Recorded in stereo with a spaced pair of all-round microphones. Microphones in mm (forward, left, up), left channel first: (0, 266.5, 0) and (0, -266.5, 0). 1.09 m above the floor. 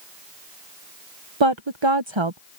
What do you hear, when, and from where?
1.4 s a woman speaking: 55° right (ahead or behind)